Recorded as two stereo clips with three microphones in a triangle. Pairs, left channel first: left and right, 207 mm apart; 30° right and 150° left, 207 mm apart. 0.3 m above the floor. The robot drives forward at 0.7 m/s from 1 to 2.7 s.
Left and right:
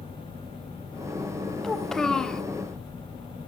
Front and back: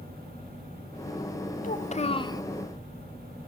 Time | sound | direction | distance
1.6 | a child speaking | 5° left | 1.0 m